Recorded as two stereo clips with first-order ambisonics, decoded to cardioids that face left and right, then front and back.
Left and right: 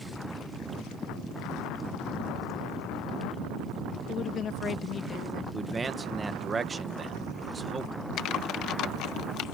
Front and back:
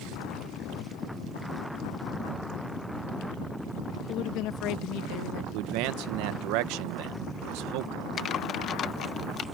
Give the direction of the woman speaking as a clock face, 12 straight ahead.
11 o'clock.